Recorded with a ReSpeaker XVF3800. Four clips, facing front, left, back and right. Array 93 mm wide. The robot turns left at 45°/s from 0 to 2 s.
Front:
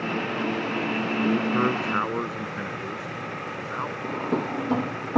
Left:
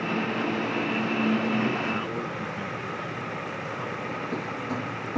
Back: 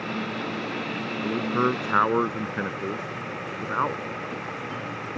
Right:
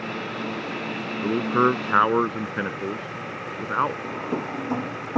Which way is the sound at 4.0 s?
25° right.